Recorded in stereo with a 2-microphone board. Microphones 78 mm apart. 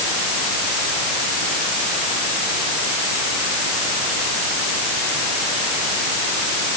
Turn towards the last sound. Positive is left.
No sound to turn to.